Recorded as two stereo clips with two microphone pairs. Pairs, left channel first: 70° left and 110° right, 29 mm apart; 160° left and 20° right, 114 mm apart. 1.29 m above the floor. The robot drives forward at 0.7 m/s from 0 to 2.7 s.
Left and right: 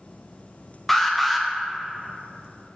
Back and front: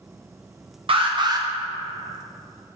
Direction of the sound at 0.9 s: 10° right.